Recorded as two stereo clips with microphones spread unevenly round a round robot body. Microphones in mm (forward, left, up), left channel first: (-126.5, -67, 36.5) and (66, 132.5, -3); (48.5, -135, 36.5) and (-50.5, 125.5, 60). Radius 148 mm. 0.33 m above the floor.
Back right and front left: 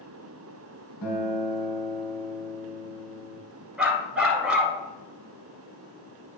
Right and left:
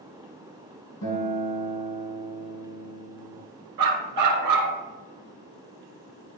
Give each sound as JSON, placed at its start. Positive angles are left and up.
{"t": 1.0, "sound": "a guitar", "azimuth_deg": -110, "distance_m": 3.5}
{"t": 3.8, "sound": "a dog barking", "azimuth_deg": 135, "distance_m": 1.7}